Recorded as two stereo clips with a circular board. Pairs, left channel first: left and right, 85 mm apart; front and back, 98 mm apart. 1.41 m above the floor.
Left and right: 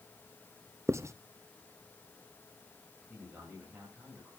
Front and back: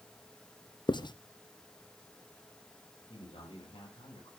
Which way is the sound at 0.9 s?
35° right.